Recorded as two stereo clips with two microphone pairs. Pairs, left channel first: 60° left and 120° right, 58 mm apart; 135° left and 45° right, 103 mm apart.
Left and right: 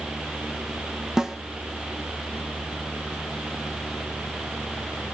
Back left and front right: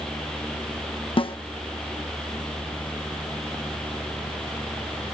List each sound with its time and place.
1.2 s a snare drum: 160° left, 0.5 m